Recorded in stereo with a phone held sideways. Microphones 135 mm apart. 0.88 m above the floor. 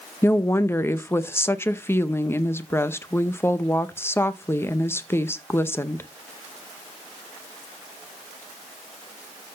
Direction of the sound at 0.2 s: 20° left (ahead or behind).